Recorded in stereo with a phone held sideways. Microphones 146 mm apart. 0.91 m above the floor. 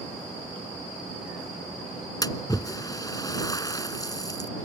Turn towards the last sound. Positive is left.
turn(degrees=25)  # may be behind; listen again after turning